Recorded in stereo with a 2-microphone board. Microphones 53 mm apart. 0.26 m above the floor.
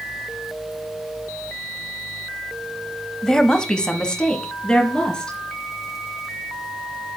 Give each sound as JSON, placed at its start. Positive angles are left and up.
{"t": 3.2, "sound": "a woman speaking", "side_deg": 10, "distance_m": 0.9}